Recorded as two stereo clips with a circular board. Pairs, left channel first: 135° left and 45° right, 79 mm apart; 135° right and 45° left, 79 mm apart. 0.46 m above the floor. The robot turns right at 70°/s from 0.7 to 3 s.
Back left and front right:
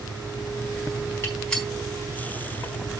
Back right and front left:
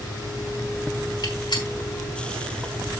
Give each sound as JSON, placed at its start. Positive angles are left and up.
{"t": 1.2, "sound": "a gunshot", "azimuth_deg": -165, "distance_m": 4.0}